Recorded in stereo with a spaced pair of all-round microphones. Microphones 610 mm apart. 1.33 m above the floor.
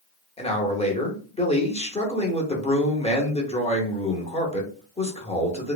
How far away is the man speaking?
About 0.6 m.